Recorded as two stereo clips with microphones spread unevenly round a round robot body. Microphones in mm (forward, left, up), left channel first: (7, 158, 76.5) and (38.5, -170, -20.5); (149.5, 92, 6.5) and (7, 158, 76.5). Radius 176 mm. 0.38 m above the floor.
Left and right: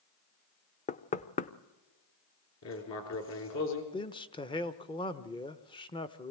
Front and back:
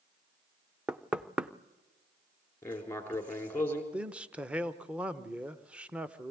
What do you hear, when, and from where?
0.9 s knocking: 15° left, 0.6 m
2.6 s writing: 50° left, 3.5 m
3.9 s a man speaking: straight ahead, 0.9 m